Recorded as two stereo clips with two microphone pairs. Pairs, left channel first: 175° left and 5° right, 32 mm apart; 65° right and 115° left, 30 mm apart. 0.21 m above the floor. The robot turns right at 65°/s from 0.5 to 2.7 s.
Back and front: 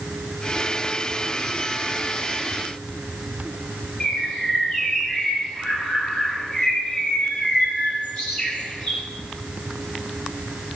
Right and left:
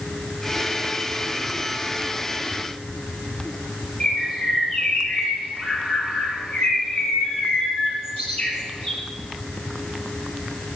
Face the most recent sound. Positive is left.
turn(degrees=-110)